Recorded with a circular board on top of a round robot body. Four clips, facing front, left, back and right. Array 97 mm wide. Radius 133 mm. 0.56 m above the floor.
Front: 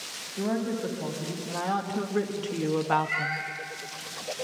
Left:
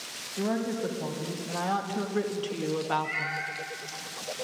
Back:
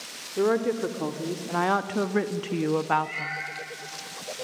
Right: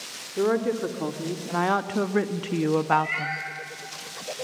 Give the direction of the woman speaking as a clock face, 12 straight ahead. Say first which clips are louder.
Right 6 dB, back 5 dB; 5 o'clock.